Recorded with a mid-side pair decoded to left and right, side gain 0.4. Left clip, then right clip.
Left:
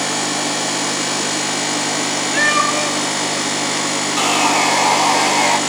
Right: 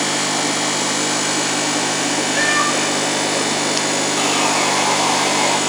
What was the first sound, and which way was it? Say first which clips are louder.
A cat meowing: left 3 dB; 40° left.